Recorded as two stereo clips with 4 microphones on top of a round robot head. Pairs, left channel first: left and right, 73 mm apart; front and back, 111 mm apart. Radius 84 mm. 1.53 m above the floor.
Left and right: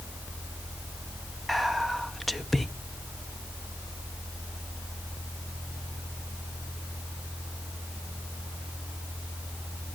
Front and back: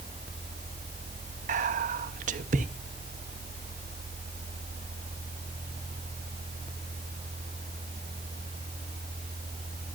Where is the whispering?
Straight behind, 1.1 m.